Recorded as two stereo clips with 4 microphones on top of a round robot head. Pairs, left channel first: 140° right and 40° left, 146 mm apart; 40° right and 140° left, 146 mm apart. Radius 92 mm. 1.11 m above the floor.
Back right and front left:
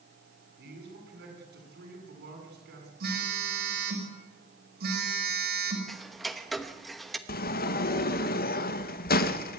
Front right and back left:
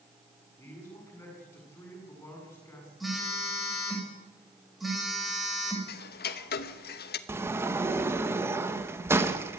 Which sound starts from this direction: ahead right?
Ticking, at 5.9 s.